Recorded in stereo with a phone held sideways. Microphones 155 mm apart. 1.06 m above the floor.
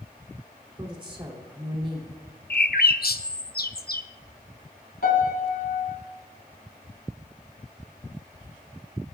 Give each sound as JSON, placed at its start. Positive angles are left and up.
{"t": 0.8, "sound": "a woman speaking", "side_deg": -30, "distance_m": 2.5}
{"t": 2.5, "sound": "a bird", "side_deg": 75, "distance_m": 0.6}
{"t": 5.0, "sound": "a piano", "side_deg": 80, "distance_m": 3.5}